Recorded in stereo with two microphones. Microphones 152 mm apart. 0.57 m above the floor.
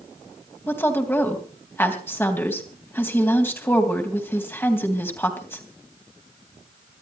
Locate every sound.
0.7 s a woman speaking: 15° left (ahead or behind), 3 m